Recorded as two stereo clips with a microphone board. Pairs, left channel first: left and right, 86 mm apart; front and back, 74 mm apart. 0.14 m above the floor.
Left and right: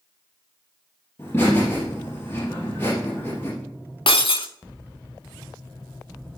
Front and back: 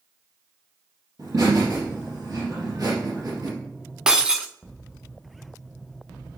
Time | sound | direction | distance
1.2 | laughter | 150° left | 3.5 m
4.1 | breaking glass | 100° left | 0.7 m